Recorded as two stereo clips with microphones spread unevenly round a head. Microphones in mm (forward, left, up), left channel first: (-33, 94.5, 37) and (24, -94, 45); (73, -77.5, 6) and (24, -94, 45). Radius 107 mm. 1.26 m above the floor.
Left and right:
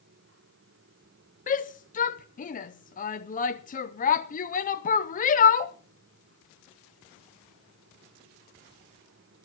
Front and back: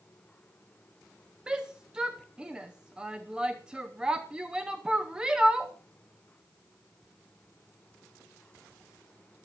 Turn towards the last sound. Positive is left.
turn(degrees=85)